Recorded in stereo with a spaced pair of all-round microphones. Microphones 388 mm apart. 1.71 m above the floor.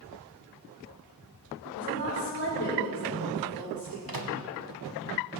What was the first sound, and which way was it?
A woman speaking, 55° left (ahead or behind).